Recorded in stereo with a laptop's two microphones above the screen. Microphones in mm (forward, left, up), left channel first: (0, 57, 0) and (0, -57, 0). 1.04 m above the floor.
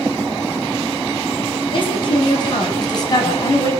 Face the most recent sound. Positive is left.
turn(degrees=30)  # may be behind; listen again after turning